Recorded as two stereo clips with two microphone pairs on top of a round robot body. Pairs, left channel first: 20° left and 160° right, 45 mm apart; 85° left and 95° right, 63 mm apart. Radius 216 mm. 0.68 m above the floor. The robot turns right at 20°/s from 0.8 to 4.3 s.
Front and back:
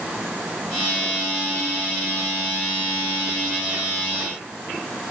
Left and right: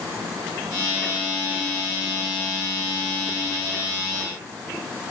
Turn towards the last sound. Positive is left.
No sound to turn to.